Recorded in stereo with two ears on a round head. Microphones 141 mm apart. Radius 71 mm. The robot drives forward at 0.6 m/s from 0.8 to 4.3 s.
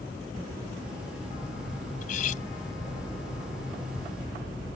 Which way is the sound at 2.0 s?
60° left (ahead or behind).